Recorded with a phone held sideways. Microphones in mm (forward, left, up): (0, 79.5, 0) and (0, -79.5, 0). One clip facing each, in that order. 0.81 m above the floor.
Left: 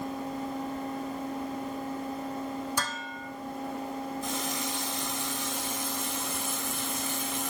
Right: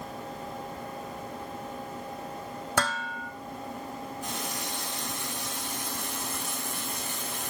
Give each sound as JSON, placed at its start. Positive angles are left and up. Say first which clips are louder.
{"t": 2.8, "sound": "dishes clattering", "louder": "right 5 dB", "side_deg": -70, "distance_m": 1.2}
{"t": 4.2, "sound": "a running tap", "louder": "left 3 dB", "side_deg": -65, "distance_m": 6.0}